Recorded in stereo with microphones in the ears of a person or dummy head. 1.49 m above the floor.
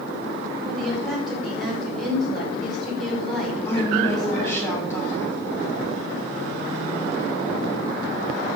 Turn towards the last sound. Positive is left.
turn(degrees=15)  # may be behind; listen again after turning